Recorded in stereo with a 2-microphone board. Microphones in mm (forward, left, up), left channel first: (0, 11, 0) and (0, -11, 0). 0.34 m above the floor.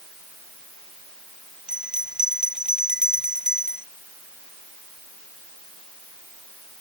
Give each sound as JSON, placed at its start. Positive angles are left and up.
{"t": 1.7, "sound": "a bell", "side_deg": -35}